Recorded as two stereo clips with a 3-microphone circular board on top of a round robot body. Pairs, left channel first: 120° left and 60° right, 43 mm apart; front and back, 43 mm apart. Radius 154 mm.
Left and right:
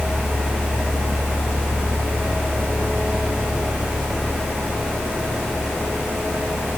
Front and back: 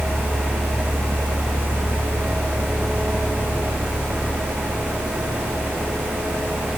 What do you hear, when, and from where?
Only background noise.